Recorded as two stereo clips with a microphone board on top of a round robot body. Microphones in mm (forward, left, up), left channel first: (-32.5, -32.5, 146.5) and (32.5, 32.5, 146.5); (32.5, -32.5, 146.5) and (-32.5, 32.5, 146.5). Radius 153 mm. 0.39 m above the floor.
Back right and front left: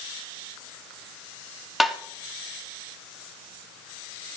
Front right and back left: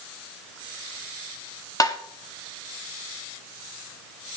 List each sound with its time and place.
1.8 s tapping: 40° right, 1.5 m